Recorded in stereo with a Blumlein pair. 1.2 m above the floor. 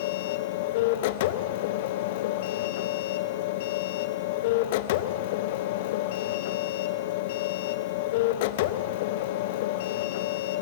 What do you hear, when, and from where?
0.0 s a machine running: 50° left, 0.7 m